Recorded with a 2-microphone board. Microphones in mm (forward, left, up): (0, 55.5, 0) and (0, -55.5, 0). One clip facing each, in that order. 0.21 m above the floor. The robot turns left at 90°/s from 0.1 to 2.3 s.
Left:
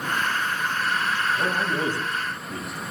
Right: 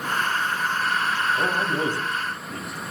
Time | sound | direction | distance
1.4 | a man speaking | 25° right (ahead or behind) | 1.1 m